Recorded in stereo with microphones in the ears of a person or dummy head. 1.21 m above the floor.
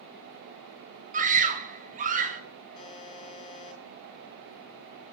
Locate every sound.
1.1 s a scream: 35° right (ahead or behind), 1.2 m
2.8 s a buzzer: 25° left (ahead or behind), 1.7 m